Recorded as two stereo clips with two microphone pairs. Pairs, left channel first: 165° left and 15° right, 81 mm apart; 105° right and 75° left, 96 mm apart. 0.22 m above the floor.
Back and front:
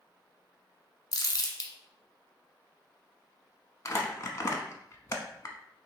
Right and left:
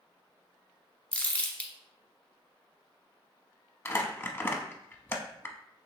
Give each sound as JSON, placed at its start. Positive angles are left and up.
{"t": 1.1, "sound": "crumpling", "azimuth_deg": -175, "distance_m": 1.0}
{"t": 3.9, "sound": "crumpling", "azimuth_deg": -165, "distance_m": 0.7}